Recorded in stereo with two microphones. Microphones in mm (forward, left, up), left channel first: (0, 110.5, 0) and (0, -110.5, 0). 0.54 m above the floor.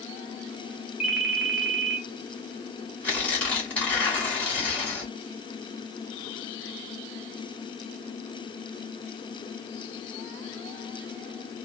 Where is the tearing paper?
5° left (ahead or behind), 1.5 m.